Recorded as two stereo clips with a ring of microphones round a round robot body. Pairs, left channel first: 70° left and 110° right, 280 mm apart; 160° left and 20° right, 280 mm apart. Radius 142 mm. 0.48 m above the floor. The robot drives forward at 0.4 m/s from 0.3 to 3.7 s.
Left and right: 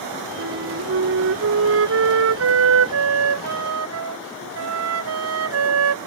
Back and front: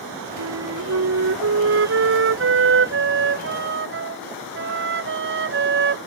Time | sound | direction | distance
0.4 | a flute | 65° right | ?